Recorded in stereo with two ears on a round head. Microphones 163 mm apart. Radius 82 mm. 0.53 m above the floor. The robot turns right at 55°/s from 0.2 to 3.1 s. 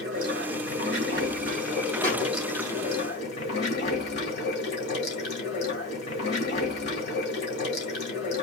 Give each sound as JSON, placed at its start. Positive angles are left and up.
{"t": 0.0, "sound": "running water", "azimuth_deg": -120, "distance_m": 2.5}
{"t": 2.0, "sound": "a thud", "side_deg": -20, "distance_m": 3.5}